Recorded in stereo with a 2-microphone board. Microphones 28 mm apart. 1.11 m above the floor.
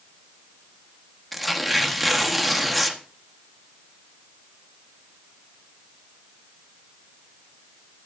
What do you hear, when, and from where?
1.3 s tearing paper: centre (ahead or behind), 1.3 m